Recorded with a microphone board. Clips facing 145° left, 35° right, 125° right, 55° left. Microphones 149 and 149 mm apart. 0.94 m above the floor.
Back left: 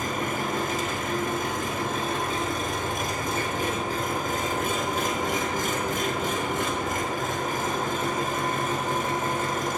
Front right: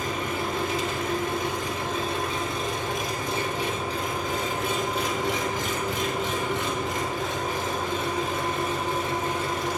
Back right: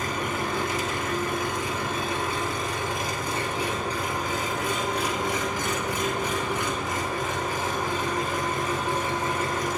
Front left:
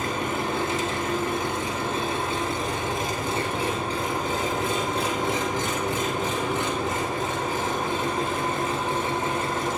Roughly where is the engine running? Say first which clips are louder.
Even, front left 2 dB; behind left.